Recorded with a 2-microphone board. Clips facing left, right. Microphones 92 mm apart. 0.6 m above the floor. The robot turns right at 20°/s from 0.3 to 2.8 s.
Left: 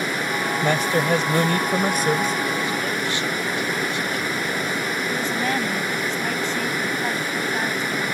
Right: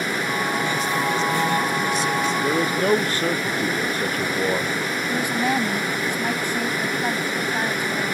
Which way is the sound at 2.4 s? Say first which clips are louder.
Right 4 dB; 40° right (ahead or behind).